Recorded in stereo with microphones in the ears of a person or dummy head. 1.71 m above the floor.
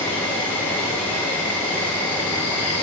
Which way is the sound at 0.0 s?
10° left (ahead or behind).